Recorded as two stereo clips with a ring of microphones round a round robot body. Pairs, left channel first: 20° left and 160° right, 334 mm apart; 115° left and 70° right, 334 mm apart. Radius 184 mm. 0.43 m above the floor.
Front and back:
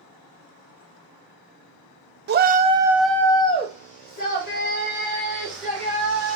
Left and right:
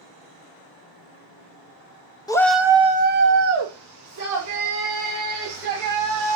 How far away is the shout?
About 0.8 m.